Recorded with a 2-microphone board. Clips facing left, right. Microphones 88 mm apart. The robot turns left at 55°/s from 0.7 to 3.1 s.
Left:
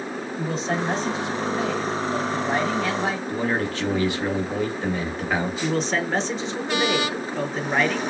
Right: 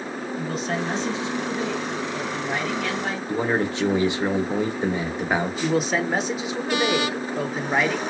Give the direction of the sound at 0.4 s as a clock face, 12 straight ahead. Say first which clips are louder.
Left 2 dB; 7 o'clock.